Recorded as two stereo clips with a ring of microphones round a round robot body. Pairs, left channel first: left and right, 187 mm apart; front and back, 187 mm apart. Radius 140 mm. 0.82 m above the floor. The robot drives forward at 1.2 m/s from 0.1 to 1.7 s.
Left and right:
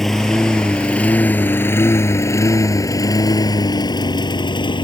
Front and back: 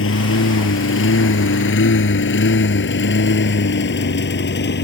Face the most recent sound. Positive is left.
turn(degrees=25)